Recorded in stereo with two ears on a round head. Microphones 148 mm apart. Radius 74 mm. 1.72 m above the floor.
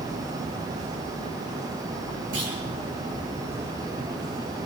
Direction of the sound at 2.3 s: 80° right.